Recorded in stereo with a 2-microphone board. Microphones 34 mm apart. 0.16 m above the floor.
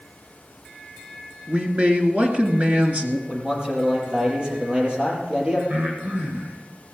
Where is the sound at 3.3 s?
30° right (ahead or behind), 5 m.